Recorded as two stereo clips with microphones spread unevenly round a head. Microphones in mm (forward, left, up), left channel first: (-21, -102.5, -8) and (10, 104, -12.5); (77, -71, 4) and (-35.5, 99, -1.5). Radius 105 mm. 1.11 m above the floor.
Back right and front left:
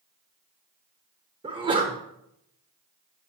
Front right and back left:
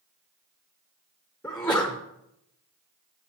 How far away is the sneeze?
About 0.6 m.